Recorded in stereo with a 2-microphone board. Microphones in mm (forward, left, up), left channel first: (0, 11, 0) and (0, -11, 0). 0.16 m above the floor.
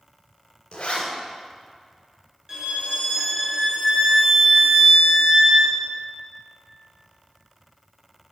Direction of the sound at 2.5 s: 30° right (ahead or behind).